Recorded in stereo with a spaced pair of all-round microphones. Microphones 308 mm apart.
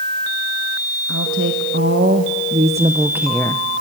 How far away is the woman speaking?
About 2 m.